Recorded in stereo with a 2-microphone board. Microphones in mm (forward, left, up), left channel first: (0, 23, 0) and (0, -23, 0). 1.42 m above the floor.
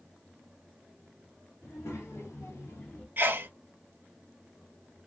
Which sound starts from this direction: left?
A child speaking, at 1.6 s.